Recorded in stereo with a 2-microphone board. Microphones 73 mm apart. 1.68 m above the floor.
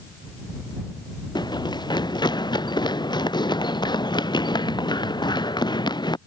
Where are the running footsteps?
80° left; by 6.2 s 85° left.